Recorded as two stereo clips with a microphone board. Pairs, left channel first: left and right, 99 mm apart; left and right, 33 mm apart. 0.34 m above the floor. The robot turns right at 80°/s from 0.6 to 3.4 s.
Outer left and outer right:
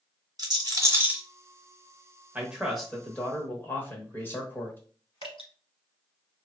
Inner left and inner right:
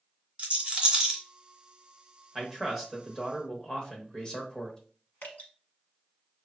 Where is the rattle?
40° right (ahead or behind), 0.8 m; by 1.2 s 10° right (ahead or behind), 0.8 m.